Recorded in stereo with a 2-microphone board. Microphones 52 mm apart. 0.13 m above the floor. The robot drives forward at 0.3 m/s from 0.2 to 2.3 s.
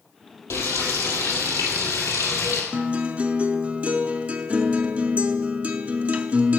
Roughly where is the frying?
Left.